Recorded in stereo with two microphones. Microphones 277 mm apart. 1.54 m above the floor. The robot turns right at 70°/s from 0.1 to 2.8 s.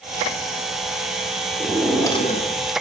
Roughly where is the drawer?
Ahead.